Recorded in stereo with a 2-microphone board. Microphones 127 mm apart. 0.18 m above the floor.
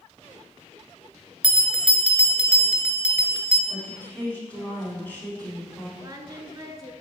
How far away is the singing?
About 0.6 m.